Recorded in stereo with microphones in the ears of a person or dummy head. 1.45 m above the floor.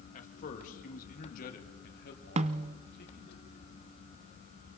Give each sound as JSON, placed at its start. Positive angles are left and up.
{"t": 0.1, "sound": "a man speaking", "side_deg": 45, "distance_m": 2.0}
{"t": 2.4, "sound": "a snare drum", "side_deg": -35, "distance_m": 0.7}